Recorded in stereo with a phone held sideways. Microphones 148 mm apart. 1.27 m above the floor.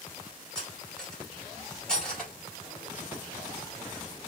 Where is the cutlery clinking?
5° left (ahead or behind), 2 m.